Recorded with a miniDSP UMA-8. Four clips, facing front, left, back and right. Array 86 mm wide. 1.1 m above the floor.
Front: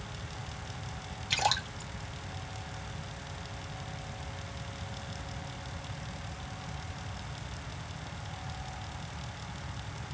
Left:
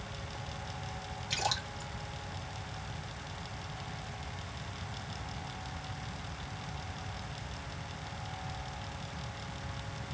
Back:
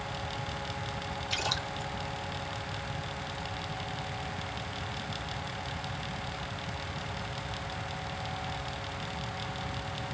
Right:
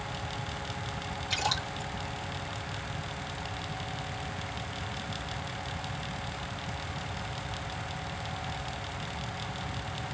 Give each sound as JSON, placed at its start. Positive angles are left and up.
{"t": 1.3, "sound": "a splash", "azimuth_deg": -5, "distance_m": 1.8}